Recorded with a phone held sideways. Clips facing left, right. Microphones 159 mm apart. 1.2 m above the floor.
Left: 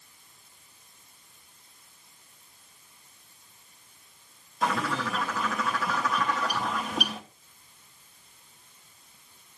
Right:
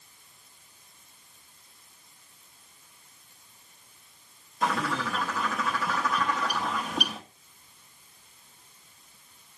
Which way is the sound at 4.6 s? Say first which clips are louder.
Even; centre (ahead or behind).